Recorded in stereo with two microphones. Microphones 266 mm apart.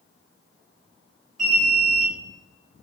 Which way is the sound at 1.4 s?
30° right (ahead or behind).